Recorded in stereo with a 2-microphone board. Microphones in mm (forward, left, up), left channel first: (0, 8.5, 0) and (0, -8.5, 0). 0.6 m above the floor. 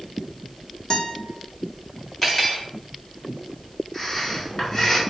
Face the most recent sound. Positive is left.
turn(degrees=20)  # may be behind; listen again after turning